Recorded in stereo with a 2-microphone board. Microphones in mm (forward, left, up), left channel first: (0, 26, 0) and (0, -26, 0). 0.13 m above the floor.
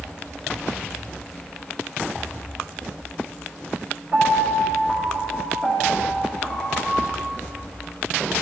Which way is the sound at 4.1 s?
5° right (ahead or behind).